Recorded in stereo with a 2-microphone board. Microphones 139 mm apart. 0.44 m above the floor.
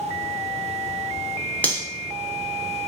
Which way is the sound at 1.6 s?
10° left (ahead or behind).